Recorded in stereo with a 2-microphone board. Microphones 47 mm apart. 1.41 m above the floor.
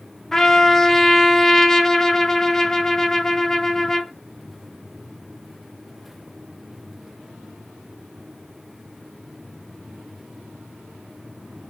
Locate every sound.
0.3 s a trumpet: 10° left (ahead or behind), 0.5 m